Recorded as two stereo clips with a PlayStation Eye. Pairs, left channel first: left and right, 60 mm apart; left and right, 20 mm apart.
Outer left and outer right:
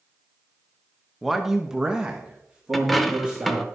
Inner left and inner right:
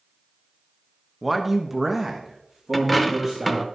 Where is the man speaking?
Centre (ahead or behind), 0.9 m; by 3.7 s 20° right (ahead or behind), 2 m.